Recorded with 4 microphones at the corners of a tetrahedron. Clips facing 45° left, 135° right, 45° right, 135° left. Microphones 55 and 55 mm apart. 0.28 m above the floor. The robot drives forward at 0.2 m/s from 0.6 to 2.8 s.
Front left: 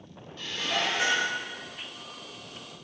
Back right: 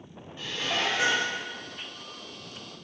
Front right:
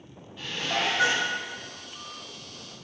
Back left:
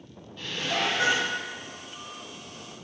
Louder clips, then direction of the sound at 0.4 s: Even, even; 110° right.